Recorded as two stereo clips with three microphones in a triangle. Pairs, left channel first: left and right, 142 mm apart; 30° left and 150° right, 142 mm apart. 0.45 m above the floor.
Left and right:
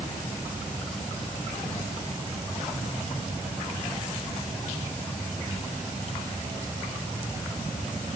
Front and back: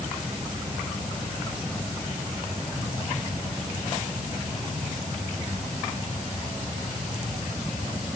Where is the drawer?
No drawer in this recording.